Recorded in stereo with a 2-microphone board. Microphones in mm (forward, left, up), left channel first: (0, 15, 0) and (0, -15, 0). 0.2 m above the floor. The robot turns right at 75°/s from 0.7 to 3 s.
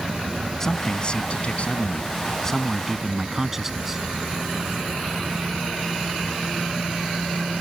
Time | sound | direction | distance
0.6 | a man speaking | 25° left | ?